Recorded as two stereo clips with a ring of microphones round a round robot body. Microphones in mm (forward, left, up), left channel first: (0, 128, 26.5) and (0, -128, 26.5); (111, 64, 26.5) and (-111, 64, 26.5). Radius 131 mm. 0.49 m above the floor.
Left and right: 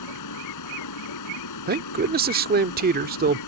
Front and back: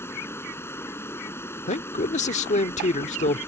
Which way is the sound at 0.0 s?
80° left.